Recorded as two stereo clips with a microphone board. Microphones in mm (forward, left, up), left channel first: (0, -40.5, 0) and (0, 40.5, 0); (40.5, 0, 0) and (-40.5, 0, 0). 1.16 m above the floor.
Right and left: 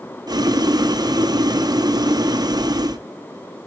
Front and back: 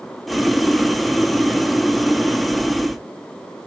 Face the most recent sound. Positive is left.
turn(degrees=90)